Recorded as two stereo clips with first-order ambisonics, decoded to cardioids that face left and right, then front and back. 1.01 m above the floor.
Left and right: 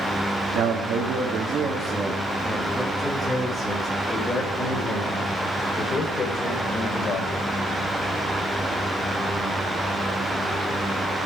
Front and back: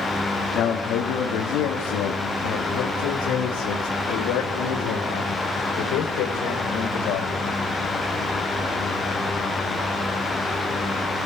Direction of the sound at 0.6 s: 55° right.